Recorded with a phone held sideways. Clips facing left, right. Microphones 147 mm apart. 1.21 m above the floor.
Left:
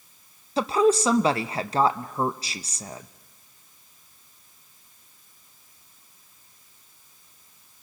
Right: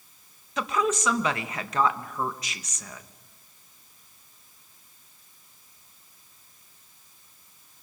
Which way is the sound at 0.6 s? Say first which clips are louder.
Left 7 dB; 30° left (ahead or behind).